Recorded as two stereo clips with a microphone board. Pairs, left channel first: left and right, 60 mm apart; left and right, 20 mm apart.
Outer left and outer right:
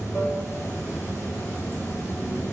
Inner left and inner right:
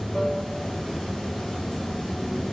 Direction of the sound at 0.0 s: 45° left (ahead or behind).